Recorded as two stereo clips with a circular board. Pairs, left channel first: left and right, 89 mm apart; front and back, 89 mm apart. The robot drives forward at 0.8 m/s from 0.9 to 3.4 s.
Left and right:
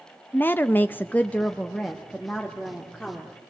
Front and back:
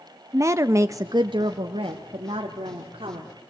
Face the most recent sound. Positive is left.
turn(degrees=175)